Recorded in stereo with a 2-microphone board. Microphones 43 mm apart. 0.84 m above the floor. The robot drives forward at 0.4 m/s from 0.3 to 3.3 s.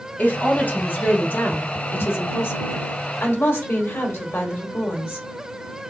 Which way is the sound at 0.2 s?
45° left (ahead or behind).